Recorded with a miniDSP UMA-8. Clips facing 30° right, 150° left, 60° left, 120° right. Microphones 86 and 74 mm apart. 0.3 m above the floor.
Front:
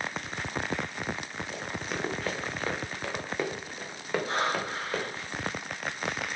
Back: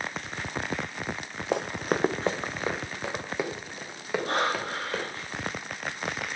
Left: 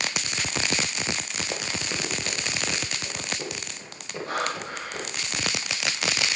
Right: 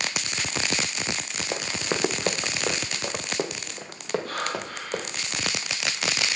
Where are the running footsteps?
160° left, 0.9 m; by 5.0 s 115° right, 4.5 m.